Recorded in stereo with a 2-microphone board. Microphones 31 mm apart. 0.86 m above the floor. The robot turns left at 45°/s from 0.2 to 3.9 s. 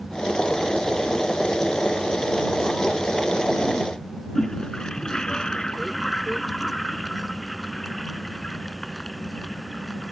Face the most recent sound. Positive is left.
turn(degrees=25)  # may be behind; listen again after turning